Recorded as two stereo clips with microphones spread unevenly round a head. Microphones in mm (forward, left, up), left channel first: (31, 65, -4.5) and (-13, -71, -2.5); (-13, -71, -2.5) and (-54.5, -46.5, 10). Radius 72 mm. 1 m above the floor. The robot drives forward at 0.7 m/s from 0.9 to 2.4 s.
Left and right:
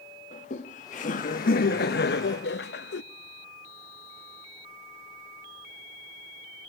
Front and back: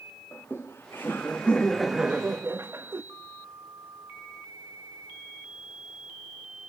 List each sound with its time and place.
0.3 s laughter: 35° left, 1.6 m; by 3.0 s 75° left, 1.0 m